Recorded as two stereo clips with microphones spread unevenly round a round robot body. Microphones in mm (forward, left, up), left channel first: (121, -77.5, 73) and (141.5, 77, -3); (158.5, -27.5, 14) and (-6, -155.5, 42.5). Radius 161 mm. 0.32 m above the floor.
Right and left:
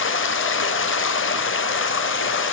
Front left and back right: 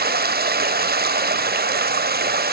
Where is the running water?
95° right, 1.3 m.